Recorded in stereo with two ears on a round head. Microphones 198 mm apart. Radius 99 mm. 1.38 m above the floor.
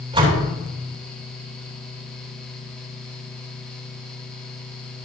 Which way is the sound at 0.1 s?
25° right (ahead or behind).